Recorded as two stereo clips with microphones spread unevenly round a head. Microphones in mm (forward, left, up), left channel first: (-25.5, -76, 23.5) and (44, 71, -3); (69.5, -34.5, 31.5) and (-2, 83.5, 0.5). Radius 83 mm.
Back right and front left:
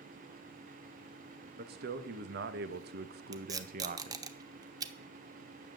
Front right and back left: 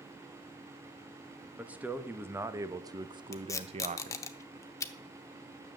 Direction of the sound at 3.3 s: 5° right.